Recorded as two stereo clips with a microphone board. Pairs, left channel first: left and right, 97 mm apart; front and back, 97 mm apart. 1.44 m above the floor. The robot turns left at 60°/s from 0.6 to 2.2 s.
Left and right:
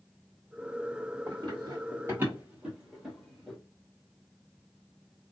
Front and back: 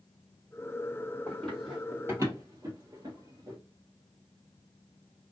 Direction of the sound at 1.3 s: 65° right.